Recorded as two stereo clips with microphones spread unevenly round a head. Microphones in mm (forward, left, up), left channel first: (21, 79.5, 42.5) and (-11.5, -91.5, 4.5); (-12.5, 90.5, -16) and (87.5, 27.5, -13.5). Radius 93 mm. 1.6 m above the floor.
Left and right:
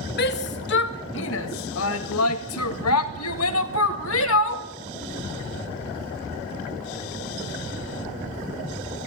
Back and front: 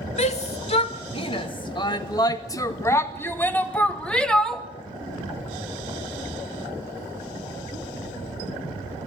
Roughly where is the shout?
Behind left.